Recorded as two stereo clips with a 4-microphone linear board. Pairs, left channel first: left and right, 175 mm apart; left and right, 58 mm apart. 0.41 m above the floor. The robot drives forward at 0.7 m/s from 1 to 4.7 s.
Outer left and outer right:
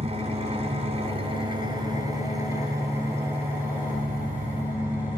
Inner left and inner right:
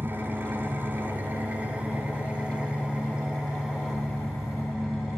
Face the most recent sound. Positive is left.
turn(degrees=-10)  # may be behind; listen again after turning